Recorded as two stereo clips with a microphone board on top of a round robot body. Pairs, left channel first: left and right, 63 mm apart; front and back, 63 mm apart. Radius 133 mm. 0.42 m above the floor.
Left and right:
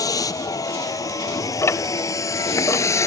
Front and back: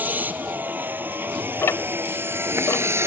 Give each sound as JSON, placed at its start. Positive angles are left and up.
{"t": 0.0, "sound": "a vehicle", "azimuth_deg": 115}
{"t": 1.6, "sound": "ticking", "azimuth_deg": 45}